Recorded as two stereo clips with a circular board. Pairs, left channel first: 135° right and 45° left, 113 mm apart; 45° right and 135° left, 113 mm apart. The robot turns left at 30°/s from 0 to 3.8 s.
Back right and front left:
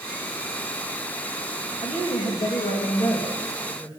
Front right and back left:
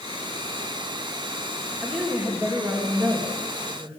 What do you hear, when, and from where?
1.8 s a woman speaking: 130° right, 2.5 m; by 4.0 s 170° left, 2.5 m